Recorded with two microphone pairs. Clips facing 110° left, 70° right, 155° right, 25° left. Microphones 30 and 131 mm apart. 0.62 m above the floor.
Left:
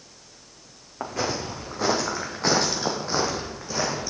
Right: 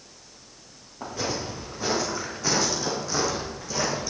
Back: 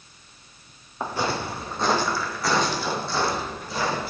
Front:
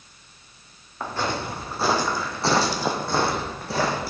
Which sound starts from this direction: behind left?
Footsteps, at 1.0 s.